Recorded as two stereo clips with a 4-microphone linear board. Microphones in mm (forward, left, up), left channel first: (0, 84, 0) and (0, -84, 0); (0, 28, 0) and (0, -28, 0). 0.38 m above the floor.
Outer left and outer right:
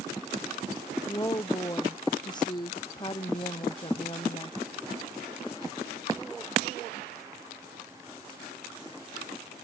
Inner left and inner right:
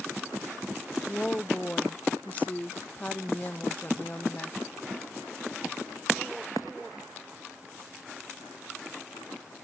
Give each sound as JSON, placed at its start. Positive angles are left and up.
{"t": 1.1, "sound": "a woman speaking", "side_deg": 20}